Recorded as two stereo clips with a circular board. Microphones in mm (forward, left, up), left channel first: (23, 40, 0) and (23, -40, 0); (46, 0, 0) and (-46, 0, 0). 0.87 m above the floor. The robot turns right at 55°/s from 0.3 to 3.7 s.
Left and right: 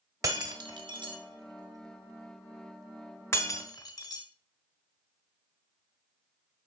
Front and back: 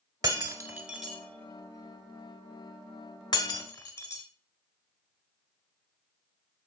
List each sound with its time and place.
0.2 s breaking glass: 135° right, 1.2 m; by 4.2 s 55° left, 1.2 m